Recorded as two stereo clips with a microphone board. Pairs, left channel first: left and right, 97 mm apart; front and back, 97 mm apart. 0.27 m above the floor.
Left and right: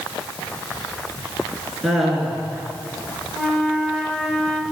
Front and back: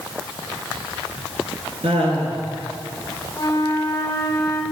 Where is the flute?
5° left, 1.1 m.